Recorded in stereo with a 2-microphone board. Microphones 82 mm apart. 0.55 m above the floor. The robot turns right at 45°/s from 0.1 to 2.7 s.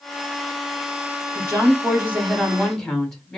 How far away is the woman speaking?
About 1.7 m.